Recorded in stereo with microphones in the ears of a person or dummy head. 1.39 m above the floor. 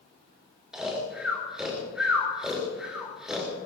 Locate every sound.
0.7 s snoring: centre (ahead or behind), 4 m